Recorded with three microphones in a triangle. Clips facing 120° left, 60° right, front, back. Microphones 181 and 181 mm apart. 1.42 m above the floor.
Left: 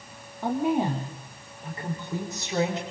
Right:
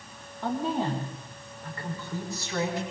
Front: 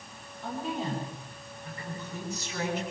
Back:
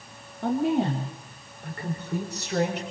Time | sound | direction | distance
0.4 | a woman speaking | 165° right | 3.5 m